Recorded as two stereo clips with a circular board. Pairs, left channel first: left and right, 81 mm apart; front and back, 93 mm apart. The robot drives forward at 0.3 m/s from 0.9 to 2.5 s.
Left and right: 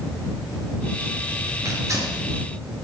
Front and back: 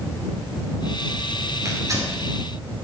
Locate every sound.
1.6 s tearing paper: 130° right, 4.5 m; by 2.2 s 135° right, 4.5 m